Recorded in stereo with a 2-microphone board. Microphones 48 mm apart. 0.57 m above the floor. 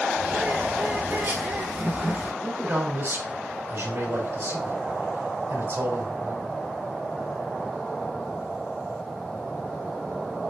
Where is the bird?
55° right (ahead or behind), 5 m.